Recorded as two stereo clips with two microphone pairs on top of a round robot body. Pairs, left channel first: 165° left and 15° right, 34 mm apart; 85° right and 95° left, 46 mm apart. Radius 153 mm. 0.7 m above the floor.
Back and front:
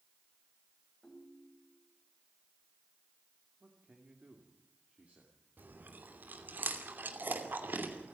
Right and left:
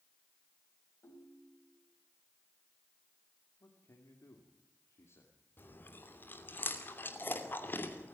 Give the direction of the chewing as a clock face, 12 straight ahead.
1 o'clock.